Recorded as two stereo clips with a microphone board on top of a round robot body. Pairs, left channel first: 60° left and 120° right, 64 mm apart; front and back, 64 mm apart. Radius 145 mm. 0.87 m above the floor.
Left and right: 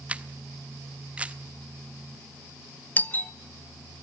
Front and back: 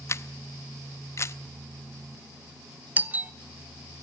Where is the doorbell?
120° left, 1.3 m.